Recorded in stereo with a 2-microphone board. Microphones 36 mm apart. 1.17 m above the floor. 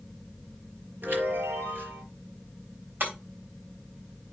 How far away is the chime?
About 4.5 m.